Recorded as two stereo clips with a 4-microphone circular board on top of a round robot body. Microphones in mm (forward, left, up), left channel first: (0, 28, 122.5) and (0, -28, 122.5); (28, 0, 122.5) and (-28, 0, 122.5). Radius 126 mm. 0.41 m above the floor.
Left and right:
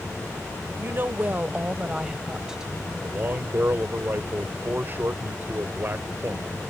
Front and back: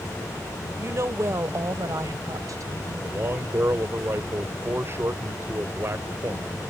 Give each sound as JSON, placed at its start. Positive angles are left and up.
{"t": 0.8, "sound": "a woman speaking", "azimuth_deg": -140}
{"t": 3.0, "sound": "a man speaking", "azimuth_deg": -140}